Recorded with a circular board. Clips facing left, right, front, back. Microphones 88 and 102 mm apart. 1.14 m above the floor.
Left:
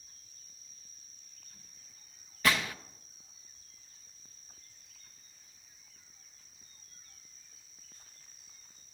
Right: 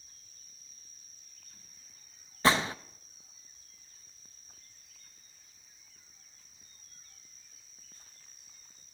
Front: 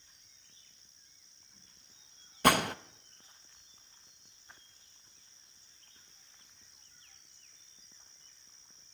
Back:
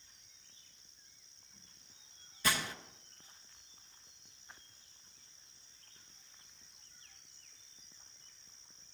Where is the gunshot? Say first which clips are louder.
Right 4 dB, front 10 dB; 30° right, 0.8 m.